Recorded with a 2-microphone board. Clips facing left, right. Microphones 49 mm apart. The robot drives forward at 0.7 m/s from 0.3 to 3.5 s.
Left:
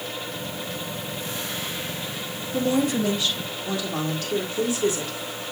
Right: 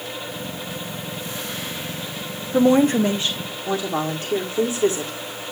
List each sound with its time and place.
2.5 s a woman speaking: 40° right (ahead or behind), 0.7 m; by 5.1 s 25° right (ahead or behind), 1.2 m